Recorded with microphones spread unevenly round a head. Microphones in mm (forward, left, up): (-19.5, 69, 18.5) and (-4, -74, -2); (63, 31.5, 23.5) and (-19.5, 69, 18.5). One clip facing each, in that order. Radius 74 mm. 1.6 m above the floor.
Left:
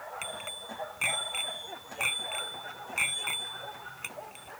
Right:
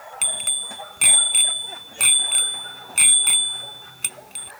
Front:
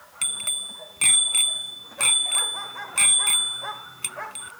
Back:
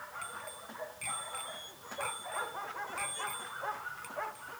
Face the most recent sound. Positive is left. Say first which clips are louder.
# right 2 dB, front 2 dB
turn(degrees=-35)